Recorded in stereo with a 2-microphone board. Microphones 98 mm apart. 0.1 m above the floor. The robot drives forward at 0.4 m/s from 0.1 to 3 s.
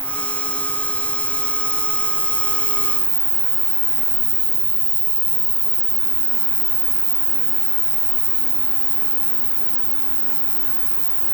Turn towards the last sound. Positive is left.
turn(degrees=50)  # may be behind; listen again after turning